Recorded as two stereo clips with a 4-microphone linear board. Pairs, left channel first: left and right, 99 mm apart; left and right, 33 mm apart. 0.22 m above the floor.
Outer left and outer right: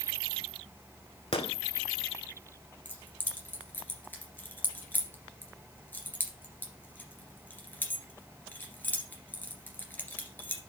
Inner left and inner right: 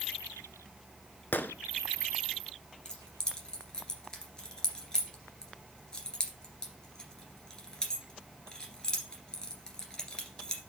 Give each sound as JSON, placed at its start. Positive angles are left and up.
{"t": 1.3, "sound": "a gunshot", "side_deg": 80, "distance_m": 0.6}
{"t": 2.9, "sound": "keys jangling", "side_deg": 20, "distance_m": 2.0}